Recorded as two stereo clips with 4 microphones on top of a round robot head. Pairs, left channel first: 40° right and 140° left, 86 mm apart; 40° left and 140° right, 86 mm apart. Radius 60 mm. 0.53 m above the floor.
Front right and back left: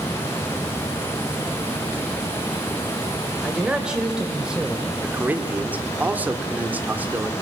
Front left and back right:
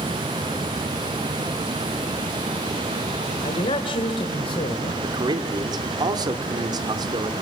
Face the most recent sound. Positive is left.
turn(degrees=-155)